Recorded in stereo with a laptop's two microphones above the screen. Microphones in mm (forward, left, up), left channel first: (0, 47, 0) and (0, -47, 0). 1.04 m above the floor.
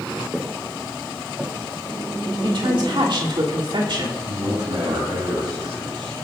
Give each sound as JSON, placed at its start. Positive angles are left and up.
{"t": 0.3, "sound": "footsteps", "side_deg": -5, "distance_m": 5.5}
{"t": 2.4, "sound": "a woman speaking", "side_deg": -60, "distance_m": 3.0}
{"t": 4.3, "sound": "a man speaking", "side_deg": -60, "distance_m": 7.5}